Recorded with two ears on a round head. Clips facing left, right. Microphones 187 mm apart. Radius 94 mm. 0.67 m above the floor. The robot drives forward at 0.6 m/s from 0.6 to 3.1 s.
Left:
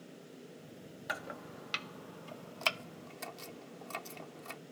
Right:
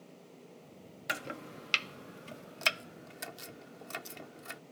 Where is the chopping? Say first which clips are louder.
Right 3 dB; 35° right (ahead or behind); by 4.6 s 15° right (ahead or behind).